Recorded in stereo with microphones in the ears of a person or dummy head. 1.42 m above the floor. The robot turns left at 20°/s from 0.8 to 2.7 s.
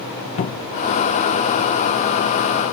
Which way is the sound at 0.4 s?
40° left (ahead or behind).